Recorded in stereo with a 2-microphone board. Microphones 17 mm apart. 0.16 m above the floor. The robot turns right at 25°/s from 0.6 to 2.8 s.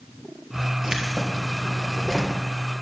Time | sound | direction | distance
0.8 | keys jangling | 40° right | 2.5 m